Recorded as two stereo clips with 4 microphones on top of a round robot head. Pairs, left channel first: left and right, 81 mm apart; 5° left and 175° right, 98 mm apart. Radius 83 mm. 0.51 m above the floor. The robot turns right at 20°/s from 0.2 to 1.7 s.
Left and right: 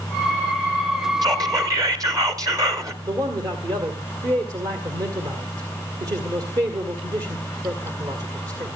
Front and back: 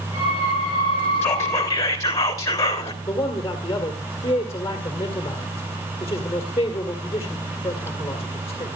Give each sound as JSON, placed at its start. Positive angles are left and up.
{"t": 1.2, "sound": "whispering", "azimuth_deg": -60, "distance_m": 3.0}
{"t": 3.0, "sound": "a man speaking", "azimuth_deg": -55, "distance_m": 2.0}